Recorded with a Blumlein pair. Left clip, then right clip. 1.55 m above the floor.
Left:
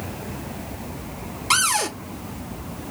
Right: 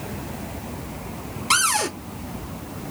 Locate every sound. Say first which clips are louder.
1.5 s a cupboard door: even; straight ahead, 0.7 m